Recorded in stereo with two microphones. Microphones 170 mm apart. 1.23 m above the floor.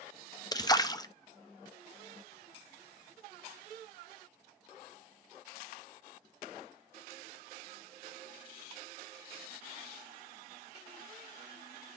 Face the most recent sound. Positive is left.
turn(degrees=25)  # may be behind; listen again after turning